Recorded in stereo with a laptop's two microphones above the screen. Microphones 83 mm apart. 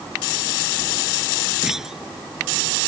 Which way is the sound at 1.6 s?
5° right (ahead or behind).